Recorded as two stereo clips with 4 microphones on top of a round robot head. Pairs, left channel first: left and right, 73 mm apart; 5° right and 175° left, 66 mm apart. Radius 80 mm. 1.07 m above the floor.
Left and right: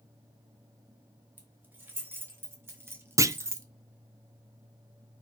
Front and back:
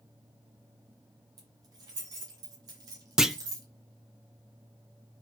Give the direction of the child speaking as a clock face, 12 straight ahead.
I don't hear a child speaking.